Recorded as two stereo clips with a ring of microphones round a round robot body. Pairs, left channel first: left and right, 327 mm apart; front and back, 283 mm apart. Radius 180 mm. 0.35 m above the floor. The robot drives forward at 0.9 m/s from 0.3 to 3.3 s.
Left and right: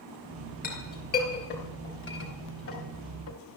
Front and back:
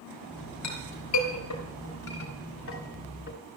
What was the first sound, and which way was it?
A clink, 25° left.